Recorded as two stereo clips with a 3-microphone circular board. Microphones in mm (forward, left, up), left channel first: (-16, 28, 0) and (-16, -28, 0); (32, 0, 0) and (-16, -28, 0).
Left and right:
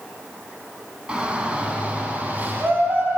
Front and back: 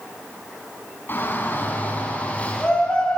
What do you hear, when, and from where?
1.1 s a shout: 20° right, 5 m; by 3.2 s 45° right, 5 m